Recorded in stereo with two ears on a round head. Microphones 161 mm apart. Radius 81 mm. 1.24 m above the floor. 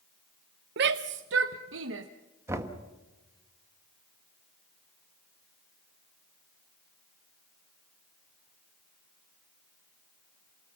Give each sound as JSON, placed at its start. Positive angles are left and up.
{"t": 0.8, "sound": "a shout", "side_deg": -65, "distance_m": 0.6}
{"t": 2.5, "sound": "knocking", "side_deg": -15, "distance_m": 1.4}